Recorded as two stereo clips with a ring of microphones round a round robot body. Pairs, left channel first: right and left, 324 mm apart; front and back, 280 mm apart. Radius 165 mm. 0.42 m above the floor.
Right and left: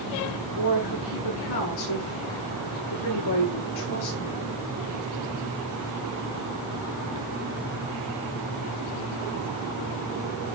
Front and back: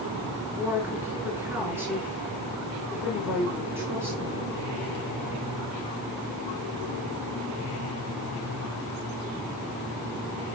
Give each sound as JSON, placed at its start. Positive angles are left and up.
{"t": 0.6, "sound": "a woman speaking", "azimuth_deg": -95, "distance_m": 5.0}